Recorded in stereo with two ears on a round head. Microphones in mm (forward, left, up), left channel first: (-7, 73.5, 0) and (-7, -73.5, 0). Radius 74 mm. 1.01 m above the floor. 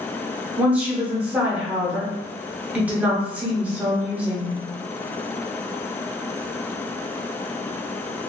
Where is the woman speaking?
10° right (ahead or behind), 0.9 m.